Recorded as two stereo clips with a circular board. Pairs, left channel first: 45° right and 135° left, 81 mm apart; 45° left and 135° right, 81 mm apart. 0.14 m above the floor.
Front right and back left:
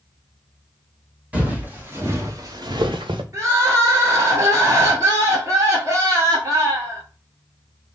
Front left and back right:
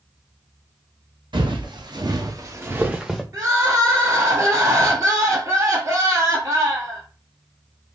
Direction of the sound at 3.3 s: 175° right.